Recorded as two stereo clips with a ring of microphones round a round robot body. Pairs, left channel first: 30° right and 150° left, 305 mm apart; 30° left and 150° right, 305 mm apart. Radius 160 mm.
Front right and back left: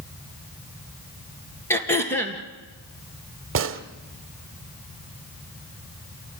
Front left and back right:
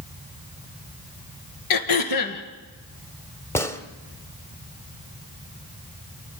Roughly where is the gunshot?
Left.